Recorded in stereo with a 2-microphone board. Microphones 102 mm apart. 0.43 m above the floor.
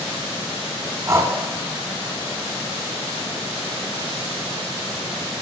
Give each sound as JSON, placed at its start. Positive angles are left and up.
{"t": 1.1, "sound": "breathing", "side_deg": -30, "distance_m": 0.6}